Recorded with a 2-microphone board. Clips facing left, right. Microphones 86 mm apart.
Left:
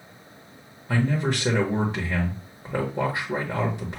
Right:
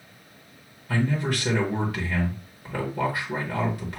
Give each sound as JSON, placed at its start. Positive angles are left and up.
{"t": 0.9, "sound": "a man speaking", "side_deg": 25, "distance_m": 1.4}